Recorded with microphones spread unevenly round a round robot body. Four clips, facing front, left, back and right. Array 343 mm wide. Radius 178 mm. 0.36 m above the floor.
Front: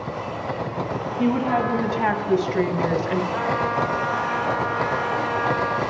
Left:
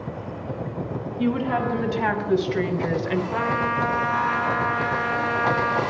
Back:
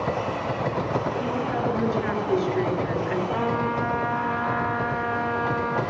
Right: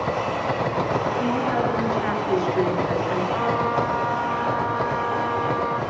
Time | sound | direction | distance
1.2 | a woman speaking | 20° left | 4 m
3.3 | a trumpet | 160° left | 2.5 m